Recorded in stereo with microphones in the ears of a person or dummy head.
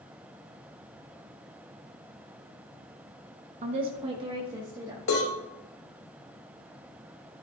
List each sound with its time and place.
3.6 s a woman speaking: 35° right (ahead or behind), 0.8 m; by 5.0 s 20° right (ahead or behind), 2 m
5.1 s a cowbell: 75° left (ahead or behind), 3.5 m